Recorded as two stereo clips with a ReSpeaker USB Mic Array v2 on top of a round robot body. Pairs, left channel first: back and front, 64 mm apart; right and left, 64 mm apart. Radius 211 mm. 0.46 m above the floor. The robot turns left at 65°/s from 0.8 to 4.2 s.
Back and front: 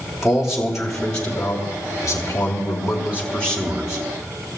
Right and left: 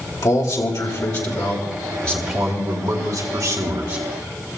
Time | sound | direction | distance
0.2 | a man speaking | 85° right | 3 m